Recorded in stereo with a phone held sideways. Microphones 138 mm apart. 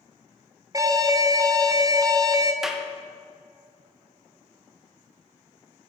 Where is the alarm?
25° right (ahead or behind), 0.6 m.